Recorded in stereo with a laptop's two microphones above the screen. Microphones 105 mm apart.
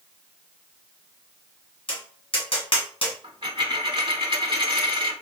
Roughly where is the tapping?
Left.